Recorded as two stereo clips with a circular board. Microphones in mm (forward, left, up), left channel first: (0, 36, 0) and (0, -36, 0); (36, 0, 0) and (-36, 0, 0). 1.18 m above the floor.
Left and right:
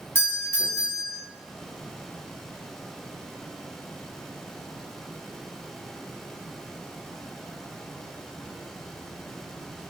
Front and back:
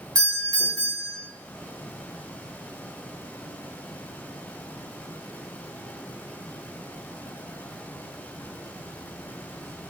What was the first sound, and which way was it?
A doorbell, 140° left.